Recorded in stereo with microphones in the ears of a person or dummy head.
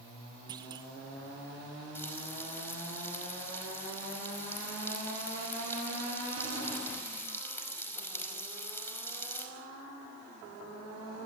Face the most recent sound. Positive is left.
turn(degrees=20)  # may be behind; listen again after turning